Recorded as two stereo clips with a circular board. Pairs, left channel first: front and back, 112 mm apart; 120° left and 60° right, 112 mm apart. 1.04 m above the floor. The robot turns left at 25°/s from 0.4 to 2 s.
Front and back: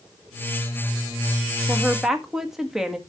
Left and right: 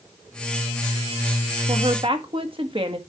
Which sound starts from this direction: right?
A woman speaking, at 1.7 s.